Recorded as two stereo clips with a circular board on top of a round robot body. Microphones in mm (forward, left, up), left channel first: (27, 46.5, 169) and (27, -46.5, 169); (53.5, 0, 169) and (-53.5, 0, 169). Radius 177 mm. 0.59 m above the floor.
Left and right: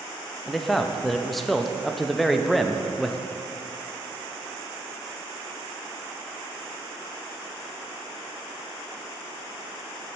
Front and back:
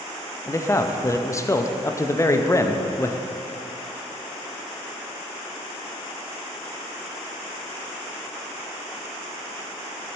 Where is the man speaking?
5° left, 0.6 m.